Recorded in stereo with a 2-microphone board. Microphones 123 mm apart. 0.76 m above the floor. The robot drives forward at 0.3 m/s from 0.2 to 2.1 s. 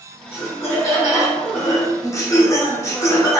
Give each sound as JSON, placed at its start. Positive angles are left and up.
{"t": 0.3, "sound": "laughter", "side_deg": 20, "distance_m": 1.0}